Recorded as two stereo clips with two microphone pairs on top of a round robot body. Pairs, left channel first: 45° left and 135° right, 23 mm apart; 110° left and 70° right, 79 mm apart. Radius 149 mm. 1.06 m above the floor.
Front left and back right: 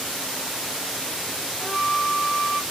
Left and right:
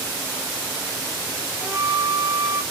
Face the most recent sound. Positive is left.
turn(degrees=105)